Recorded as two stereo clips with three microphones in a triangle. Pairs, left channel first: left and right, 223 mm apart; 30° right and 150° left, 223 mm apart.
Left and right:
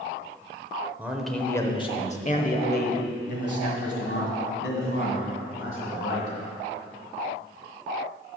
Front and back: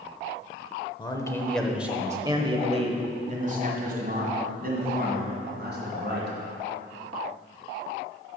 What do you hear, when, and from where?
1.0 s a man speaking: 25° right, 0.8 m; by 6.3 s 110° left, 3 m